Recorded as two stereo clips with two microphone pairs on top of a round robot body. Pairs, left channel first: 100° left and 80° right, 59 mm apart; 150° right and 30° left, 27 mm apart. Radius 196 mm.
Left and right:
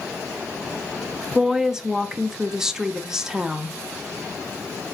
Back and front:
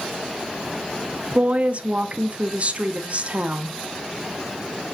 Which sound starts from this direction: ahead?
A woman speaking, at 1.4 s.